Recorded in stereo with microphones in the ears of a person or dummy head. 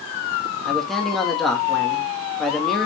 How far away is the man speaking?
About 2 m.